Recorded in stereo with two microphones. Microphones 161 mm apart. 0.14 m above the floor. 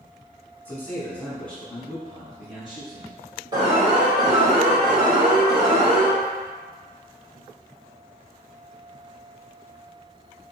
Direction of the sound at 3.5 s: 25° right (ahead or behind).